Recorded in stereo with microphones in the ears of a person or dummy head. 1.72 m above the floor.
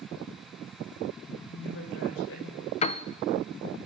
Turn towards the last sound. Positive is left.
turn(degrees=35)  # may be behind; listen again after turning